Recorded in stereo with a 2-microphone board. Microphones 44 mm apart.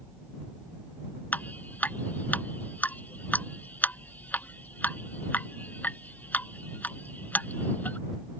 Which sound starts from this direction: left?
Dripping, at 1.3 s.